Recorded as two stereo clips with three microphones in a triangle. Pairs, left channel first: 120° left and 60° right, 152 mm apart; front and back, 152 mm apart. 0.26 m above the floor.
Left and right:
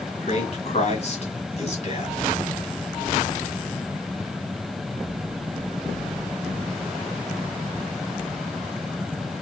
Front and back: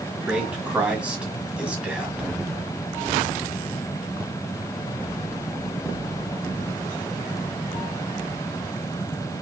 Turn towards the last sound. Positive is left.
turn(degrees=100)